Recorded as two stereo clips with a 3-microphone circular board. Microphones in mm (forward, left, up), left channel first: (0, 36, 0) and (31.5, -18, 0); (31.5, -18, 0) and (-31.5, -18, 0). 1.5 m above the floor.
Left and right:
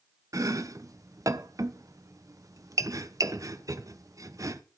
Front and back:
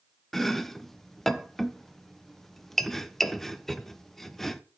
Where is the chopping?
85° right, 0.9 m.